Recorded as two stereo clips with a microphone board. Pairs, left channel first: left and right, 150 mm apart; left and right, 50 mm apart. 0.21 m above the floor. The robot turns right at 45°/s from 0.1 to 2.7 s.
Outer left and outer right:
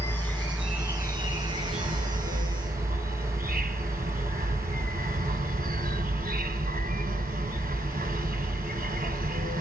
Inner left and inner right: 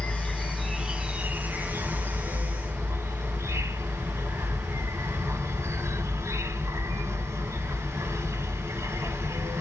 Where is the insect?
160° left, 0.7 m; by 9.6 s 80° right, 0.7 m.